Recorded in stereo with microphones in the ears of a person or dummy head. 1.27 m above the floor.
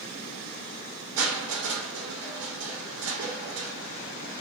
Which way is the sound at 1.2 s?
75° right (ahead or behind).